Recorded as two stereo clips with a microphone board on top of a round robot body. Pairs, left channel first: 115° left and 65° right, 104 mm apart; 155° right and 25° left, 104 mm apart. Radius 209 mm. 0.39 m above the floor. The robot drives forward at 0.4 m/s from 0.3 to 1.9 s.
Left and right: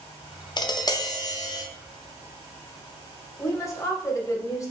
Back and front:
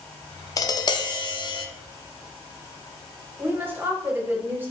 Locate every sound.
0.6 s tapping: 150° left, 0.5 m; by 1.6 s 165° left, 0.8 m
3.4 s a woman speaking: 80° left, 1.2 m